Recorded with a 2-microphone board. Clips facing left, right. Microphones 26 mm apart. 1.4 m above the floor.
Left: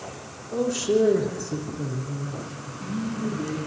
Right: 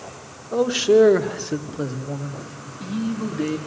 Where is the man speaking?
35° right (ahead or behind), 1.3 m; by 3.6 s 75° right (ahead or behind), 3 m.